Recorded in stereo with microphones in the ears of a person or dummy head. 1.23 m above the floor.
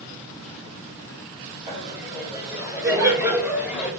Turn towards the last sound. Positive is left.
turn(degrees=-5)  # may be behind; listen again after turning